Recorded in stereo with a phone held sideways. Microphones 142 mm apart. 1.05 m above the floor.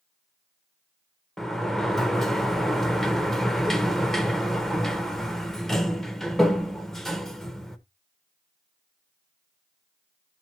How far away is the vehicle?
I don't hear a vehicle.